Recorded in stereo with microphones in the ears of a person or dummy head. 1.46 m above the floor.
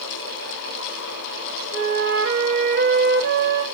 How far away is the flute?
About 0.8 m.